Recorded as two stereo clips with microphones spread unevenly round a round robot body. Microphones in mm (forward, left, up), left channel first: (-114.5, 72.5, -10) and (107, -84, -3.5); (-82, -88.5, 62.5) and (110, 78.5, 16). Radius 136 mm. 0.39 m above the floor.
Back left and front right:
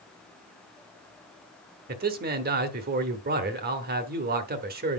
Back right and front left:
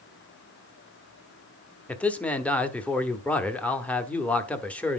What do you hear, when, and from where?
1.9 s a man speaking: 40° right, 1.2 m